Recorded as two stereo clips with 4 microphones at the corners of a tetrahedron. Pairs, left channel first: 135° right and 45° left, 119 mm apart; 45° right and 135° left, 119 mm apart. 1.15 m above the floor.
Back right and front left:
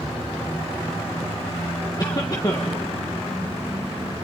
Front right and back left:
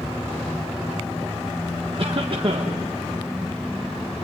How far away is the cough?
About 1.4 m.